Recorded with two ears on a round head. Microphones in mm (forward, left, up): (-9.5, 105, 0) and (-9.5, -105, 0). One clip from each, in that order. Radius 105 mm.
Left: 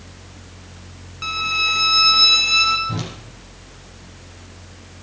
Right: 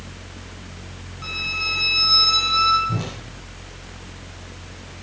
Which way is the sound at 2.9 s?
80° left.